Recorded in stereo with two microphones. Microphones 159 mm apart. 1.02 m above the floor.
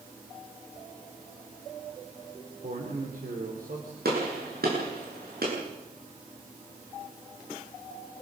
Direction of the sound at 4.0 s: 90° right.